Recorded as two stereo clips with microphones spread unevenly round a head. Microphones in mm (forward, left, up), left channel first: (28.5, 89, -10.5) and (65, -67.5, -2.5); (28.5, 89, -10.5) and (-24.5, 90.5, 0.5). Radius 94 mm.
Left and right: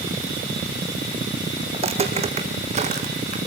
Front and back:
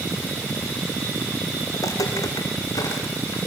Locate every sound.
1.7 s footsteps: 30° right, 3.5 m; by 3.4 s 35° right, 4 m